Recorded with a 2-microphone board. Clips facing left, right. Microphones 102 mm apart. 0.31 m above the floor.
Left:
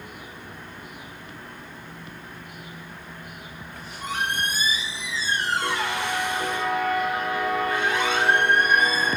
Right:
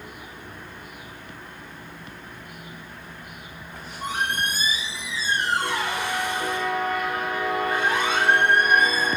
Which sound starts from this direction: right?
A squeak, at 3.7 s.